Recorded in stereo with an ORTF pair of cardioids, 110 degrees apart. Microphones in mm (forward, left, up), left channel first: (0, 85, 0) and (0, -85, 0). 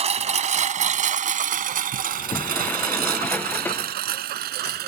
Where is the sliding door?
10° left.